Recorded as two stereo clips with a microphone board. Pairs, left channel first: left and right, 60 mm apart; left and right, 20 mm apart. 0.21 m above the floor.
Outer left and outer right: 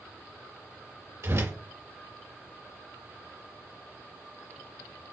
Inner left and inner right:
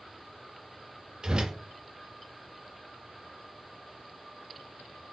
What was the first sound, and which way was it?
A whoosh, 50° right (ahead or behind).